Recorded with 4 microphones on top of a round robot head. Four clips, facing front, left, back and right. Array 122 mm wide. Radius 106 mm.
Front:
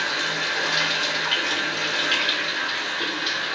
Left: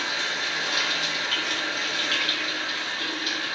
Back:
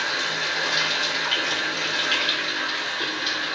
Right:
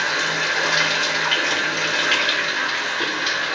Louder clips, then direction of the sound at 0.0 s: Right 7 dB, front 1 dB; 90° right.